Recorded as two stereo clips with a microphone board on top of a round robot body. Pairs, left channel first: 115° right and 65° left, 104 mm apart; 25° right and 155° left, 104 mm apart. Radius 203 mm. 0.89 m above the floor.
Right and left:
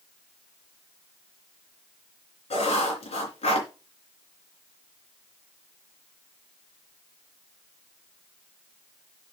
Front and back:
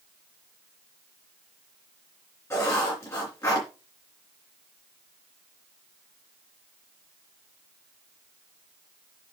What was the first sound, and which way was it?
Writing, 85° right.